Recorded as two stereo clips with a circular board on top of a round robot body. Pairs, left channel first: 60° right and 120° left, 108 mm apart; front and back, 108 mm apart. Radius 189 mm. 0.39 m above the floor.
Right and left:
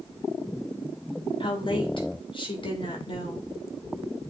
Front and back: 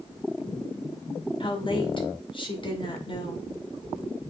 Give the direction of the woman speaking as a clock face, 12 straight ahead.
1 o'clock.